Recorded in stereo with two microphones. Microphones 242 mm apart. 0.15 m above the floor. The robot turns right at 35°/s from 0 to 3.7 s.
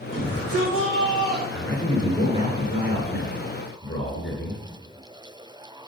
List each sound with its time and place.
0.1 s a shout: 85° right, 5 m; by 1.4 s 40° right, 5 m
1.5 s a man speaking: straight ahead, 2.5 m; by 4.6 s 80° left, 2.5 m